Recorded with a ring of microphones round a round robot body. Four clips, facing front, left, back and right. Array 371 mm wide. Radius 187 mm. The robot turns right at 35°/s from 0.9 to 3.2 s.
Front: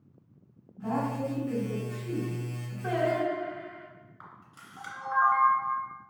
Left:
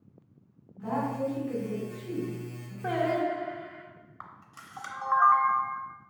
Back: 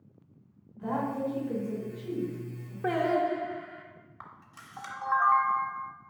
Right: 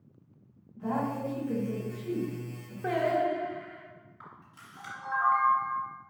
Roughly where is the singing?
Behind.